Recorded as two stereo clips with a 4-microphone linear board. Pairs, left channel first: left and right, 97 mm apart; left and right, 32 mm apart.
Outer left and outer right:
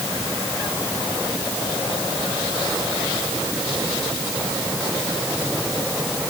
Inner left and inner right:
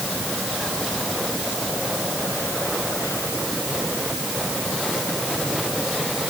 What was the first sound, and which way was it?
Only background noise.